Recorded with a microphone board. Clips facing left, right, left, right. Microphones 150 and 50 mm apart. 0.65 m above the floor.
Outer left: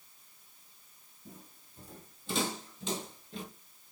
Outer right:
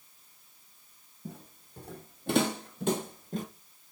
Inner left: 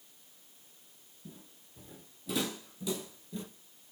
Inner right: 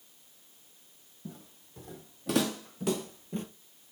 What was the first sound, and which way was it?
Footsteps, 70° right (ahead or behind).